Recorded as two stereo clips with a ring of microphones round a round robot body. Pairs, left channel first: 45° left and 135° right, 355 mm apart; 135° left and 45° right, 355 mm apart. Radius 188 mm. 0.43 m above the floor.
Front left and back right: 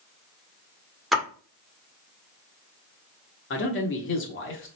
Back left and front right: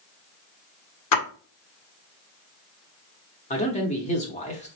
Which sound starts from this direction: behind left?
A splash, at 1.1 s.